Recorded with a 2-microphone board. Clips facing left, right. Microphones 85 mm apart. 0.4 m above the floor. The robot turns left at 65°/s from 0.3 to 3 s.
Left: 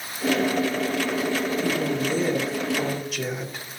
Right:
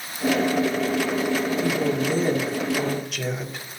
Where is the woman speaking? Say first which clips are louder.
Right 2 dB; 90° right, 2 m; by 3.6 s straight behind, 2 m.